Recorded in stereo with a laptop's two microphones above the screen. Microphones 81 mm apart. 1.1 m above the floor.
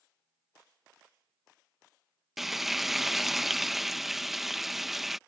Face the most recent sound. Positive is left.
turn(degrees=0)  # may be behind; listen again after turning